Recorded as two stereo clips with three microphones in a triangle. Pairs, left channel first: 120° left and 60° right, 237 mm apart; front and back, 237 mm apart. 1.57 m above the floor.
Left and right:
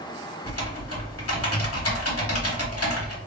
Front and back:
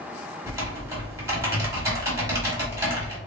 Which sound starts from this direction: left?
Typing on a keyboard, at 0.5 s.